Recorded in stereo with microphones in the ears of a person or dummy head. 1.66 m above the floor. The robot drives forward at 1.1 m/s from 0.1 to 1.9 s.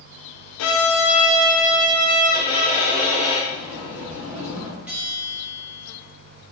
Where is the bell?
5° right (ahead or behind), 3 m.